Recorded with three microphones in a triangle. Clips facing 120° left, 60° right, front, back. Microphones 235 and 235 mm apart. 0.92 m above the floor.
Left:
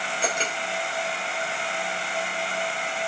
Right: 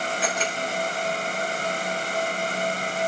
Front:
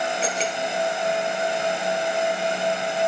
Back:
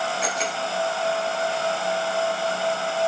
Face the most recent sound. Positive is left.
turn(degrees=60)